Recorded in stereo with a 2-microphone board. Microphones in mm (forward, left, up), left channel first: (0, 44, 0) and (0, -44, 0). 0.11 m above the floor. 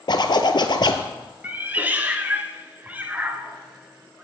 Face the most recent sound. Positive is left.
turn(degrees=-20)  # may be behind; listen again after turning